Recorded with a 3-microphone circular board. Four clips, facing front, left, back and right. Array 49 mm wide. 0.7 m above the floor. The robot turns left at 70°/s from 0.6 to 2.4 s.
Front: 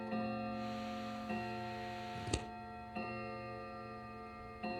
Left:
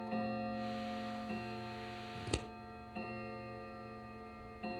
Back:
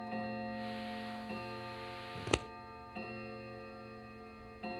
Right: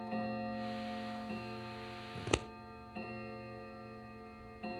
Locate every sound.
2.1 s scissors: 125° right, 0.6 m; by 2.5 s 145° right, 0.6 m